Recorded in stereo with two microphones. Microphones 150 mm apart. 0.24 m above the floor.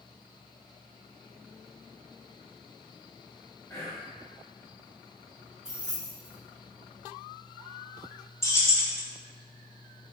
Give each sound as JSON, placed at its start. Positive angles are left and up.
{"t": 3.7, "sound": "whispering", "side_deg": 15, "distance_m": 1.2}
{"t": 5.7, "sound": "keys jangling", "side_deg": -5, "distance_m": 1.7}
{"t": 8.4, "sound": "keys jangling", "side_deg": 20, "distance_m": 0.6}